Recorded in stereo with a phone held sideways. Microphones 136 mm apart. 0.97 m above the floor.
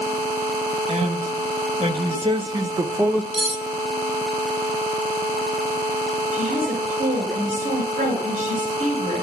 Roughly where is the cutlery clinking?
Right.